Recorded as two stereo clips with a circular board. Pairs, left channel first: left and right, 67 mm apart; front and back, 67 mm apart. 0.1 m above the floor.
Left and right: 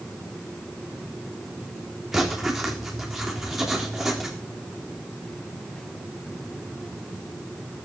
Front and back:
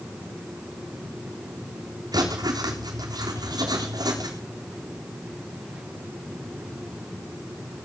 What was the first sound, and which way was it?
Writing, 175° right.